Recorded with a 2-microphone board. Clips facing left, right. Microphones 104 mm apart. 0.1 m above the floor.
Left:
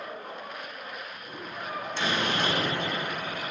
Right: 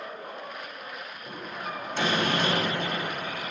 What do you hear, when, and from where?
1.3 s a door slam: 50° right (ahead or behind), 3.5 m